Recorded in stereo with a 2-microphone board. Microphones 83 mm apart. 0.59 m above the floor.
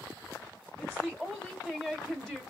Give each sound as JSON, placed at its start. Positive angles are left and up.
{"t": 0.8, "sound": "a woman speaking", "side_deg": 0, "distance_m": 1.4}